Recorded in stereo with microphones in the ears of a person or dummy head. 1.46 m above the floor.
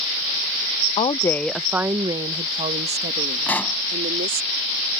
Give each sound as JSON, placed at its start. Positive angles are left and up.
{"t": 1.0, "sound": "a woman speaking", "side_deg": 35}
{"t": 3.5, "sound": "a pop", "side_deg": 10}